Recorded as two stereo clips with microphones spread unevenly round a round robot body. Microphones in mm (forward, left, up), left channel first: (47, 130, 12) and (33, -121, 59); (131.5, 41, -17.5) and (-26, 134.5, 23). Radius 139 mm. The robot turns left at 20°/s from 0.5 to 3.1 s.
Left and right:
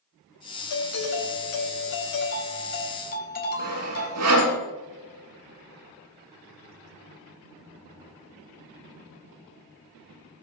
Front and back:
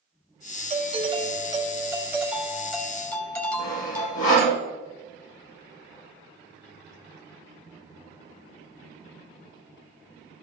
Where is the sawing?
70° right, 6.5 m.